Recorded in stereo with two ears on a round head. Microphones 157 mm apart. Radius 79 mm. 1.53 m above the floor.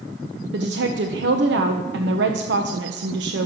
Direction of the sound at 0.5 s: 70° right (ahead or behind).